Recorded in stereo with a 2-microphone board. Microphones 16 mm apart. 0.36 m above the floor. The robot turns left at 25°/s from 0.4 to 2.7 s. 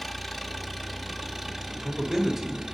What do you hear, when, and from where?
0.0 s an engine running: 5° right, 1.0 m; by 2.8 s 60° right, 1.0 m
1.7 s a man speaking: 30° right (ahead or behind), 1.1 m; by 2.6 s 25° right (ahead or behind), 1.1 m